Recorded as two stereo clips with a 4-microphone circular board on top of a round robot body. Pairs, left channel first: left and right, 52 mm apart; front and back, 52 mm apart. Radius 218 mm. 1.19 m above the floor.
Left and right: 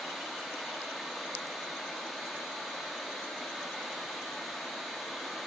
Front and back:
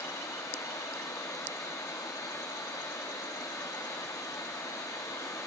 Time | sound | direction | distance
0.0 | running water | 5° left | 0.8 m